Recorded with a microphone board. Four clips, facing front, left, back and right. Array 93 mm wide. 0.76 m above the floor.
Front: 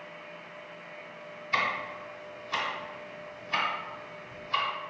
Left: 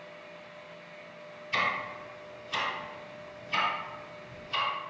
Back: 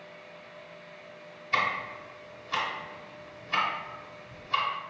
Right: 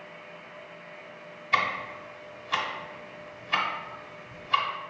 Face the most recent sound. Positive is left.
turn(degrees=-90)